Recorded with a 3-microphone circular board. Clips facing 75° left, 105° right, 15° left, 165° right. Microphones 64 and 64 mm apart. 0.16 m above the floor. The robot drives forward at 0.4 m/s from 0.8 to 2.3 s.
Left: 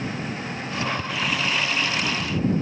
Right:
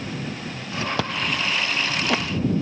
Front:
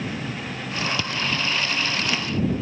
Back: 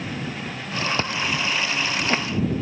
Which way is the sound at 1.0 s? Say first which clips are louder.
Right 1 dB, back 1 dB; 110° right.